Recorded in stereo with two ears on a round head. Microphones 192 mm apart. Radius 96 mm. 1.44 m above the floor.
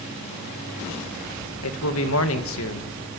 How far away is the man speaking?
About 1.9 m.